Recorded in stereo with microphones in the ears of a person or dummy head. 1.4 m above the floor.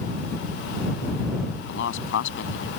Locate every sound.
1.7 s a man speaking: 70° left (ahead or behind)